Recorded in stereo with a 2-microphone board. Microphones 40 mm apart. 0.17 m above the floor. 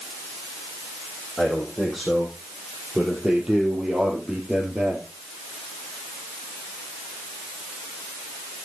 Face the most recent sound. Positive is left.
turn(degrees=-20)  # may be behind; listen again after turning